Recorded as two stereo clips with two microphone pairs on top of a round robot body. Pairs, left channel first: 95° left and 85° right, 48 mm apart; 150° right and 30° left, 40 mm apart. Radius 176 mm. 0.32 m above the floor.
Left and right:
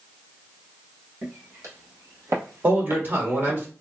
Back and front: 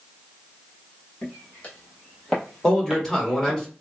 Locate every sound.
1.2 s footsteps: 95° right, 1.6 m; by 3.6 s 5° right, 0.9 m
2.6 s a man speaking: 75° right, 2 m